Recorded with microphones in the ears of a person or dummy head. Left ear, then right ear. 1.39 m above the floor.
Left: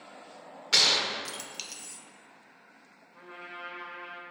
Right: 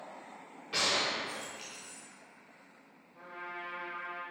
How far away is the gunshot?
About 0.8 m.